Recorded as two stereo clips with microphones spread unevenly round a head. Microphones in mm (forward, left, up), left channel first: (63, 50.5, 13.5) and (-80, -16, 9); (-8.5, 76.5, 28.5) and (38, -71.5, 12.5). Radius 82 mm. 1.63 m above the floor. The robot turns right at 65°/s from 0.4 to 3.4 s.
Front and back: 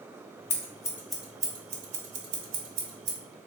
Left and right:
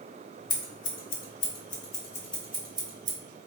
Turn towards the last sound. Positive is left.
turn(degrees=-100)